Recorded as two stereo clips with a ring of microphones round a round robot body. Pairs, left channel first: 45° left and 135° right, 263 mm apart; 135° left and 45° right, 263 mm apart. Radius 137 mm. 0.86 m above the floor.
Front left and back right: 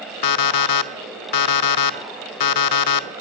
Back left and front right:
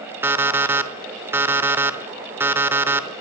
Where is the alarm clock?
35° left, 1.0 m.